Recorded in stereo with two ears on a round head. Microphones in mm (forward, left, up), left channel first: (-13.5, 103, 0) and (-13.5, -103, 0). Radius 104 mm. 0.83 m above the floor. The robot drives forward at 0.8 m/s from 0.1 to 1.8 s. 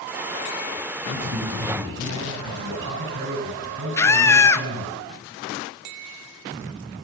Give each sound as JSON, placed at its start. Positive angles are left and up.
{"t": 1.1, "sound": "a man speaking", "side_deg": -55, "distance_m": 7.5}
{"t": 4.0, "sound": "a scream", "side_deg": 10, "distance_m": 0.8}